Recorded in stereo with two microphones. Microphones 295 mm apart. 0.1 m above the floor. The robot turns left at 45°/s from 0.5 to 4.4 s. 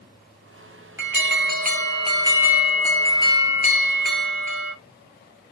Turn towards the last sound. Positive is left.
turn(degrees=105)